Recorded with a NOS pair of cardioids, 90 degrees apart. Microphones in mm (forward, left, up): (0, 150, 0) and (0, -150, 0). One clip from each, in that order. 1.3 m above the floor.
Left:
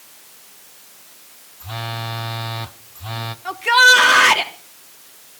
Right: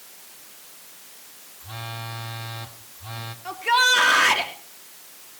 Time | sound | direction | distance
1.6 | a phone buzzing | 40° left | 1.3 m
3.5 | a shout | 30° left | 3.5 m